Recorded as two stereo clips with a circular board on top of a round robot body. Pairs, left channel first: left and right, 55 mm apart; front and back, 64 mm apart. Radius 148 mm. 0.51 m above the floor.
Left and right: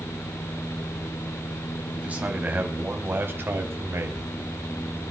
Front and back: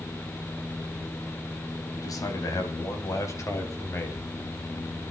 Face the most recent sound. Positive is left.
turn(degrees=-55)